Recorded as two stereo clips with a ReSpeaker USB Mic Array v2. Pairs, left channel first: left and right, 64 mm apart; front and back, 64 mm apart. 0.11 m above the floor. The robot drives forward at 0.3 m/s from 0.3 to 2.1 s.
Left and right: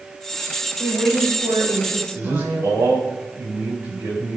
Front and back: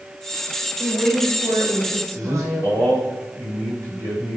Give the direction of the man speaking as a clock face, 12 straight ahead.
5 o'clock.